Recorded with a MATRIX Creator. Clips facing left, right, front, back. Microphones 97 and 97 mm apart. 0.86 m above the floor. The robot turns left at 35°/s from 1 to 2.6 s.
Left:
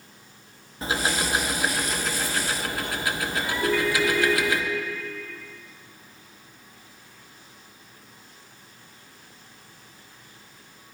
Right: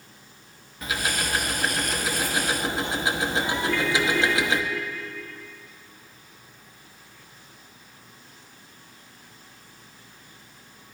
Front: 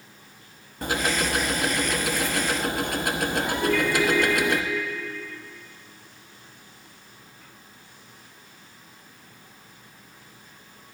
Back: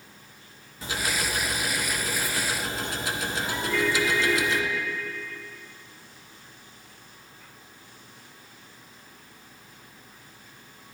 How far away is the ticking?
About 0.7 m.